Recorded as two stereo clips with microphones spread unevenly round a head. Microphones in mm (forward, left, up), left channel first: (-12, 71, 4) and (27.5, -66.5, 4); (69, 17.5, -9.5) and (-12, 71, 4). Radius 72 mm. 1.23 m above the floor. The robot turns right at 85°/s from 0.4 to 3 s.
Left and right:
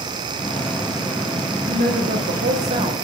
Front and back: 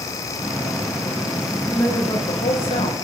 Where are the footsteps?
No footsteps in this recording.